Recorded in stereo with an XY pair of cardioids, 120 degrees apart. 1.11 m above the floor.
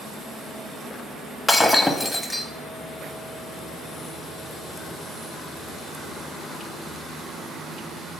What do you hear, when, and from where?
1.5 s breaking glass: 5° left, 0.9 m